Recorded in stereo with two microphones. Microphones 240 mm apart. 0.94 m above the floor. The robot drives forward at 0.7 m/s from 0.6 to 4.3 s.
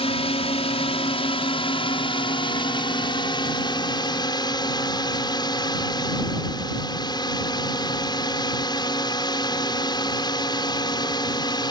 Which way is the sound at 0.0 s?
25° left (ahead or behind).